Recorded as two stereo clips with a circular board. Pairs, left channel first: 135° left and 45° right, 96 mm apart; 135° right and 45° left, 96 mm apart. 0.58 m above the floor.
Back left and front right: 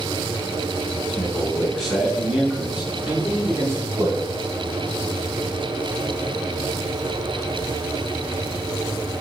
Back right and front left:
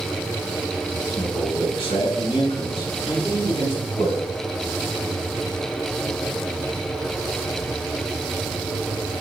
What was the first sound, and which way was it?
A man speaking, 150° right.